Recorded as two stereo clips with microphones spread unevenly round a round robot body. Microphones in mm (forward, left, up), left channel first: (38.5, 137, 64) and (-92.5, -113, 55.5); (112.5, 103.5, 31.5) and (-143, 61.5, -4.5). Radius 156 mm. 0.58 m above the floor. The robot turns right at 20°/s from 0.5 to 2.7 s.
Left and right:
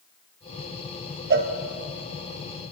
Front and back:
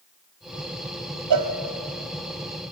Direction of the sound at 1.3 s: 170° right.